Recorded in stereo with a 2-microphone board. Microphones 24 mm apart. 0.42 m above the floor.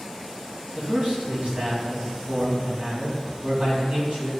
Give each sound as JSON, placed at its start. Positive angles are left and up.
{"t": 0.7, "sound": "a man speaking", "side_deg": -70, "distance_m": 2.5}